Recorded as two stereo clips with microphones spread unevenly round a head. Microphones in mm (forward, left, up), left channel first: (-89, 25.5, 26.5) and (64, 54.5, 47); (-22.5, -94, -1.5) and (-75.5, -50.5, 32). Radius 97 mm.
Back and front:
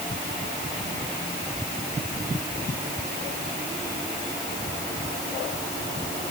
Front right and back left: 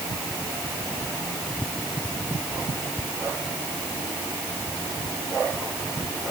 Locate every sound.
Only background noise.